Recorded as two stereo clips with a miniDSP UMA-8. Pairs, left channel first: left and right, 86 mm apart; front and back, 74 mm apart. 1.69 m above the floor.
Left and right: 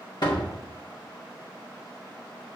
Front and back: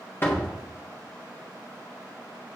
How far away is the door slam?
About 1.5 m.